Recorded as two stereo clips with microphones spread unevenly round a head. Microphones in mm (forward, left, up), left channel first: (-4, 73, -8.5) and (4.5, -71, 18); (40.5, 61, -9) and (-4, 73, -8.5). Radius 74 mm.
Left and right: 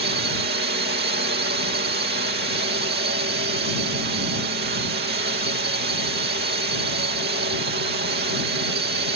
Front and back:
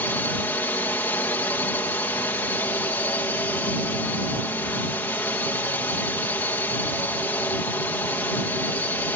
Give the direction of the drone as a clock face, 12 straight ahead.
2 o'clock.